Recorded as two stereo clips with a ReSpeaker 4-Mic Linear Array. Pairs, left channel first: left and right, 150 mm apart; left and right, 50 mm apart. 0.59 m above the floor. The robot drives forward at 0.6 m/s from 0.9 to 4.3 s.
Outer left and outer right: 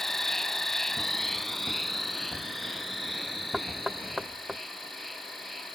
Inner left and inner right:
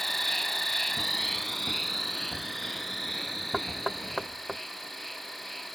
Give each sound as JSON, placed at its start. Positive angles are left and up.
{"t": 0.0, "sound": "an insect", "side_deg": 5}
{"t": 3.5, "sound": "knocking", "side_deg": -5}